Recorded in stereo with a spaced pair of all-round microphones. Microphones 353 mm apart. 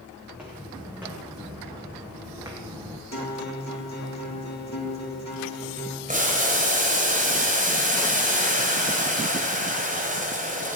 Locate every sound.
0.3 s footsteps: 5° right (ahead or behind), 5 m; by 3.0 s 10° right (ahead or behind), 3 m
3.1 s a guitar: 50° left (ahead or behind), 2.5 m
6.1 s boiling: 25° right (ahead or behind), 3.5 m